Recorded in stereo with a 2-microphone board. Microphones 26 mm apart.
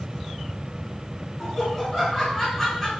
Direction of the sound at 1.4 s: 10° left (ahead or behind).